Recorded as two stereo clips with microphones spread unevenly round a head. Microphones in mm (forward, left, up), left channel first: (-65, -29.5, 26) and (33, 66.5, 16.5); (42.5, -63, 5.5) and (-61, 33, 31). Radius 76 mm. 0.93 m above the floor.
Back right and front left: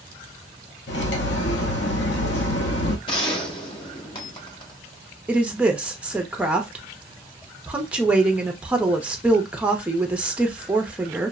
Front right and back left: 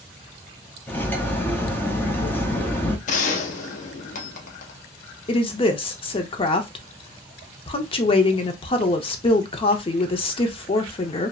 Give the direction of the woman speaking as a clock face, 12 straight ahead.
1 o'clock.